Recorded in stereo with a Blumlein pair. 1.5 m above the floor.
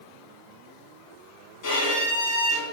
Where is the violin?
40° left, 3 m.